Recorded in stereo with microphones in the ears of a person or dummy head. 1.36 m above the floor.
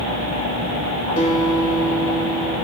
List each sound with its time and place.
1.2 s a guitar: 50° left (ahead or behind), 3 m